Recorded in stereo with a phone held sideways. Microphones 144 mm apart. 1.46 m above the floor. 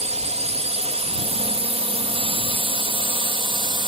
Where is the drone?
50° right (ahead or behind); by 3.9 s 35° right (ahead or behind).